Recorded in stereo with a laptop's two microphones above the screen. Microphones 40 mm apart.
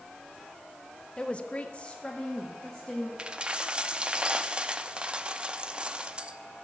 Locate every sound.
1.2 s a woman speaking: 25° left (ahead or behind), 0.8 m; by 3.1 s 15° left (ahead or behind), 2 m
3.2 s a dropped coin: 25° right (ahead or behind), 0.7 m